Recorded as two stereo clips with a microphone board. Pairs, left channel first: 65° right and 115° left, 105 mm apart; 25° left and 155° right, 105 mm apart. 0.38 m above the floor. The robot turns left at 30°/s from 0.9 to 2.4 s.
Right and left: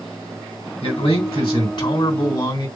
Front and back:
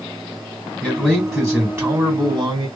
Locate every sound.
0.8 s a man speaking: 65° right, 3 m; by 2.7 s 110° right, 3 m